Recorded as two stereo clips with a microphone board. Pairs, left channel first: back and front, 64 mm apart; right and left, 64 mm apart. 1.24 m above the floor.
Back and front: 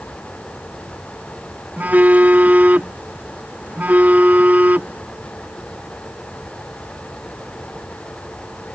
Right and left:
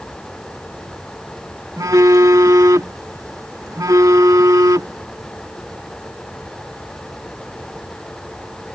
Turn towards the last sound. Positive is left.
turn(degrees=65)